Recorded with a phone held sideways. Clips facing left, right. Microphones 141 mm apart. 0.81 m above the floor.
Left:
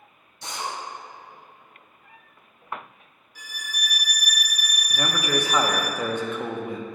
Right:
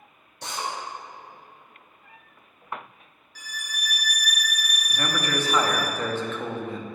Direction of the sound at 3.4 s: 20° left (ahead or behind).